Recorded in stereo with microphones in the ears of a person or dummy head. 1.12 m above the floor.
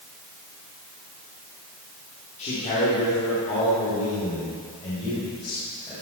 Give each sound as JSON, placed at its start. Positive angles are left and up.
{"t": 2.4, "sound": "a man speaking", "side_deg": 35, "distance_m": 3.0}